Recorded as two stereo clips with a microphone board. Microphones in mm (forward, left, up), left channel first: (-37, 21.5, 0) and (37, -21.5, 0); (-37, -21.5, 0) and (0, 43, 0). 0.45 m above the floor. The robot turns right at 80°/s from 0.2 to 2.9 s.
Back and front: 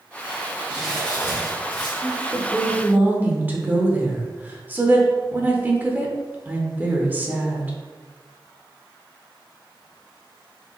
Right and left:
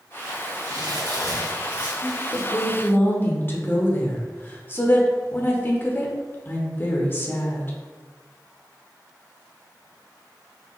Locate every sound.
0.7 s crumpling: 40° left, 1.8 m; by 1.9 s 140° left, 1.8 m
2.0 s a woman speaking: 155° right, 0.9 m; by 7.7 s 85° right, 0.9 m